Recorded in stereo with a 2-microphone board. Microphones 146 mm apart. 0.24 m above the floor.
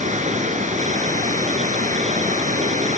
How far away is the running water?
About 1.6 m.